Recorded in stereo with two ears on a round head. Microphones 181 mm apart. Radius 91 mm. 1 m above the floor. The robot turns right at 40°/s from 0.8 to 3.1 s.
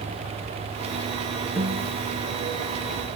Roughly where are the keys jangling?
I don't hear keys jangling.